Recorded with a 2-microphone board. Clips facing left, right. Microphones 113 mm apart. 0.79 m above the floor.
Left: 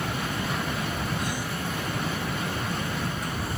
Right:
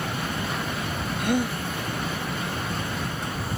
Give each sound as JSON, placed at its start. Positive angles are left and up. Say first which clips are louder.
{"t": 1.2, "sound": "a gasp", "louder": "right 7 dB", "side_deg": -50}